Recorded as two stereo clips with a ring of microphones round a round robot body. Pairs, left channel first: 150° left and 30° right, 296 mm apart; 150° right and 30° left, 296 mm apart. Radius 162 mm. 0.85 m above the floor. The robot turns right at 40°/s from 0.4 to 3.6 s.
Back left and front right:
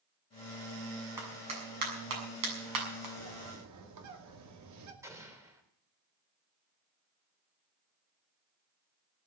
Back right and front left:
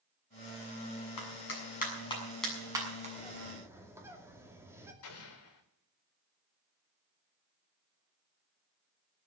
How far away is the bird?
About 2.5 m.